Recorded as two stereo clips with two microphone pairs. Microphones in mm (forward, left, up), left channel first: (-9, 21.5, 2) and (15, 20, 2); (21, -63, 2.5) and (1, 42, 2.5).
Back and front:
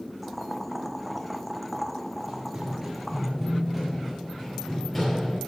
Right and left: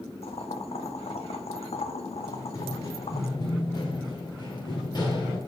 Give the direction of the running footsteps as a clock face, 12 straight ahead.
1 o'clock.